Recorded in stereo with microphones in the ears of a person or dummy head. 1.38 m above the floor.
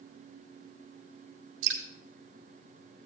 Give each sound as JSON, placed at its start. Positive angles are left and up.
{"t": 1.6, "sound": "dripping", "side_deg": -75, "distance_m": 2.5}